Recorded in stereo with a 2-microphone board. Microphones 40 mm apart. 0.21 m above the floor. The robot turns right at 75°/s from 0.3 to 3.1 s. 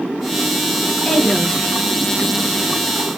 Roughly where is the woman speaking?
Centre.